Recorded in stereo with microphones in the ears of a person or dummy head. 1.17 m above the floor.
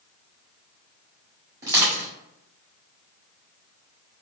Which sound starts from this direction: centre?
Crushing, at 1.6 s.